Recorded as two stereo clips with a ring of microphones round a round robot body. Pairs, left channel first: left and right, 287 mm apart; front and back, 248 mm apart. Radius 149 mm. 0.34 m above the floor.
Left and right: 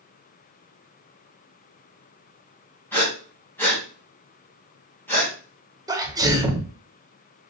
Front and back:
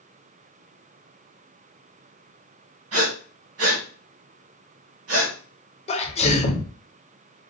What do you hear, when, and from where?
2.9 s breathing: 170° left, 2.5 m
5.9 s a sneeze: 25° right, 1.1 m